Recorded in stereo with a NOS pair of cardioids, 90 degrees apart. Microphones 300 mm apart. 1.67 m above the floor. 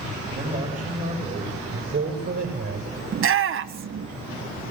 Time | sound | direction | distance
0.3 | a man speaking | 20° right | 9 m
3.1 | a shout | 45° right | 1.4 m